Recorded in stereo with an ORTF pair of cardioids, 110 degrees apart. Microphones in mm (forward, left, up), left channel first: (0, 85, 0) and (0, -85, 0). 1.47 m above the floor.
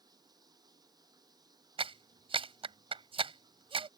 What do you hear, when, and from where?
0.0 s running water: 25° right
1.8 s a clap: 30° right